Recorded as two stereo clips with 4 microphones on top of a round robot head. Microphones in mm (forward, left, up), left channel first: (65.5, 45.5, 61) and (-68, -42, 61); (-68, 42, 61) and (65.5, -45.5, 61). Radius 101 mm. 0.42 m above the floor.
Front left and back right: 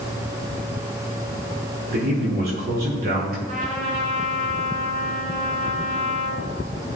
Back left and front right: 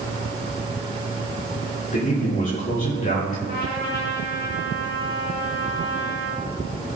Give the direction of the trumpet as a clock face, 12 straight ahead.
6 o'clock.